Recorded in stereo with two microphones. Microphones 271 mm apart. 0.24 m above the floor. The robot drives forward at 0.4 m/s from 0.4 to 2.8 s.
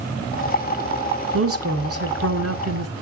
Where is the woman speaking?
55° right (ahead or behind), 3 m; by 2.9 s 65° right (ahead or behind), 2.5 m.